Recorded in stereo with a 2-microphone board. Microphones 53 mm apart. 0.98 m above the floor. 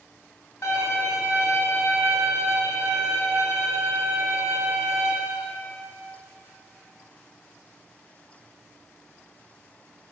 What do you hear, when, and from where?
0.6 s a violin: 60° left (ahead or behind), 1.1 m